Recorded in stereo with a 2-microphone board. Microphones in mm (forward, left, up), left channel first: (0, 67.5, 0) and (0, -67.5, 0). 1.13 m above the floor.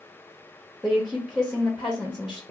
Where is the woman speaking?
Centre (ahead or behind), 0.6 m.